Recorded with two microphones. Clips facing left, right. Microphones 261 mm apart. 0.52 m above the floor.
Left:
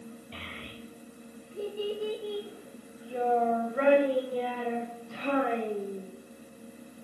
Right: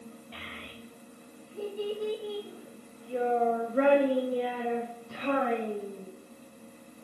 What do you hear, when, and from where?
0.3 s a child speaking: 35° left (ahead or behind), 1.7 m; by 6.1 s 75° right (ahead or behind), 2.0 m